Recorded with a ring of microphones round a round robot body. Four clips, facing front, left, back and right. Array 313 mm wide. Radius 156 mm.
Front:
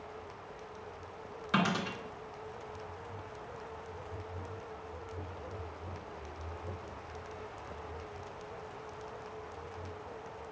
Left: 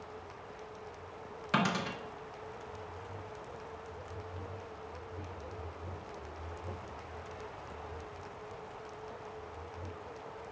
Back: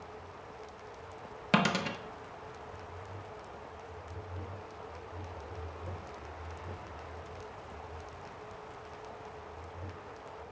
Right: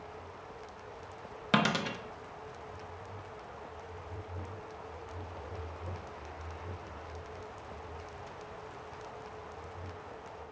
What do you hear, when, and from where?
1.5 s a dropped coin: 140° right, 0.5 m